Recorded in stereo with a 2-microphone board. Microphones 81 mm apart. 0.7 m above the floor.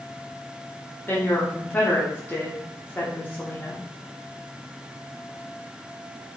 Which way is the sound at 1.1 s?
25° left (ahead or behind).